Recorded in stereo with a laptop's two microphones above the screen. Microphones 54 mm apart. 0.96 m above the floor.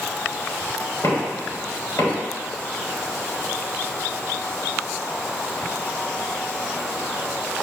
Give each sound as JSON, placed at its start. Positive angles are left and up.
{"t": 1.0, "sound": "knocking", "side_deg": 65, "distance_m": 3.0}